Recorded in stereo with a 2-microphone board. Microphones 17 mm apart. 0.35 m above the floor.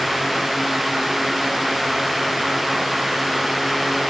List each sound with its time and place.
Only background noise.